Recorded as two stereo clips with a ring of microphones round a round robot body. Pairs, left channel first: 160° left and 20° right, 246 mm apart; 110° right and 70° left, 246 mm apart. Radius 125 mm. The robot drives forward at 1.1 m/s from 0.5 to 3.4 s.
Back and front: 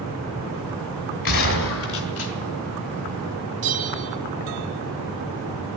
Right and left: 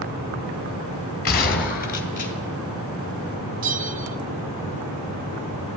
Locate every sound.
1.2 s a gunshot: 165° right, 1.8 m; by 2.3 s 170° right, 3 m
3.6 s a bell: 25° left, 1.2 m